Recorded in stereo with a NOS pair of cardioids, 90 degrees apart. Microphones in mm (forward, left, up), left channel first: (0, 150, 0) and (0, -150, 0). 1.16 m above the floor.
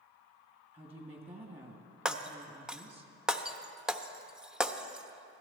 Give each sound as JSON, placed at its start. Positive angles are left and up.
{"t": 0.7, "sound": "a woman speaking", "azimuth_deg": -20, "distance_m": 2.5}
{"t": 2.0, "sound": "breaking glass", "azimuth_deg": 0, "distance_m": 0.9}